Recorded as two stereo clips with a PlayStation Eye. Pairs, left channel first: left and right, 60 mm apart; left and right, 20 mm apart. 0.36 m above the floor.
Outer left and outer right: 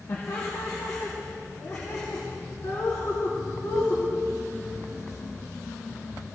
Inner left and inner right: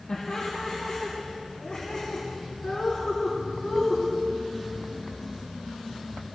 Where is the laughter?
60° left (ahead or behind), 2 m; by 4.0 s 70° left (ahead or behind), 3.5 m.